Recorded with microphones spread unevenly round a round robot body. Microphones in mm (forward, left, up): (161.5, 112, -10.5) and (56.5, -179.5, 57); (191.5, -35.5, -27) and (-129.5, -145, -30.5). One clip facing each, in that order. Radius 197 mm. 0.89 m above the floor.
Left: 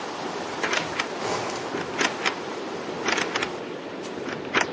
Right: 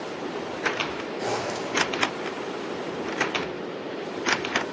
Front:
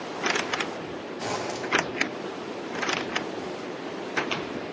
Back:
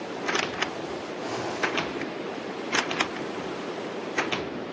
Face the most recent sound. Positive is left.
turn(degrees=10)